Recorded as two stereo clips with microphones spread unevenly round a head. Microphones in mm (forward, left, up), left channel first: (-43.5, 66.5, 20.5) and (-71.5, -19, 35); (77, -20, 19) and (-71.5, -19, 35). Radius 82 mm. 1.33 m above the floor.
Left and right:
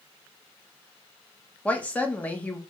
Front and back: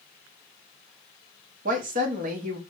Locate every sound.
1.6 s a woman speaking: 140° left, 1.1 m